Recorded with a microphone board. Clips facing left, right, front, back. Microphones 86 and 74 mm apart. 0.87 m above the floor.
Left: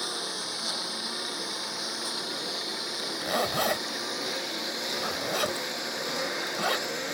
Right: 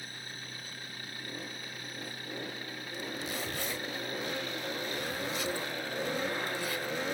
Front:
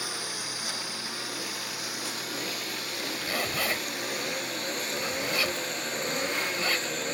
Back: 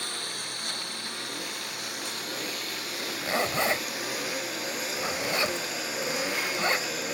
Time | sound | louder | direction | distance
0.0 | a lawn mower | left 10 dB, front 1 dB | 85° left | ?
2.9 | a zipper | left 9 dB, back 4 dB | 115° left | ?